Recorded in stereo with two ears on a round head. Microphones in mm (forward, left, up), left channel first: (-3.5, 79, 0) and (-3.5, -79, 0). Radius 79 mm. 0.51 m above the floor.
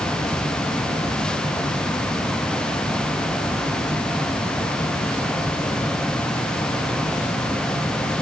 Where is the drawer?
I don't hear a drawer.